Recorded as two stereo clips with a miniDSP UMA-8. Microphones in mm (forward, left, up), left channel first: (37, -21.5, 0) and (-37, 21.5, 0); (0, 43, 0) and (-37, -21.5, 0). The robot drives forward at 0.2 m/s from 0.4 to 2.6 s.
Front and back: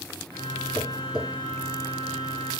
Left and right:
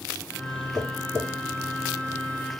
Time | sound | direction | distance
0.8 | tapping | 75° right | 2.5 m